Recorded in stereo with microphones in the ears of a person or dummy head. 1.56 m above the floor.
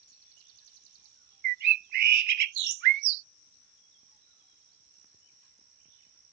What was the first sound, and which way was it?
A bird, 55° right (ahead or behind).